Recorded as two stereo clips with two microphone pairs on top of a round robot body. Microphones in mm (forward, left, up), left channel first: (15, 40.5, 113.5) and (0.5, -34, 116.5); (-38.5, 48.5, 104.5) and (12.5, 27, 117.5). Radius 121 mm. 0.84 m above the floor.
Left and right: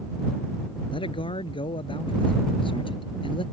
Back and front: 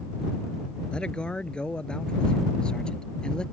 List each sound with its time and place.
0.9 s a man speaking: 85° left; by 3.4 s 80° left